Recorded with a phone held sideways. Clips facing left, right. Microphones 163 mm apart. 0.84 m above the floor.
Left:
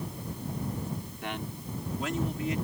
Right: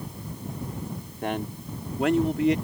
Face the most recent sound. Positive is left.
turn(degrees=-75)  # may be behind; listen again after turning